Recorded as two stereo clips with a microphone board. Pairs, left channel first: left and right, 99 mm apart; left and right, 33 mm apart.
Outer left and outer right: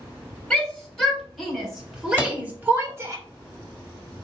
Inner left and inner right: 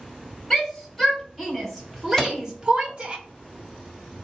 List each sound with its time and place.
0.5 s a shout: 10° left (ahead or behind), 2.5 m; by 3.2 s 30° right (ahead or behind), 1.2 m
2.2 s a microwave: 20° left (ahead or behind), 0.9 m